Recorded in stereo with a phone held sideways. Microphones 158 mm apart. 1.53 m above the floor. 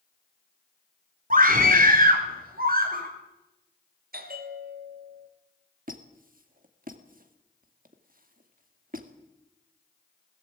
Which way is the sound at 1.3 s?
60° right (ahead or behind).